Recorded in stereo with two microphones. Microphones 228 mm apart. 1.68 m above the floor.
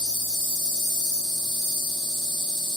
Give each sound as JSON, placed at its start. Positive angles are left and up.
{"t": 0.0, "sound": "an insect", "side_deg": -20, "distance_m": 1.9}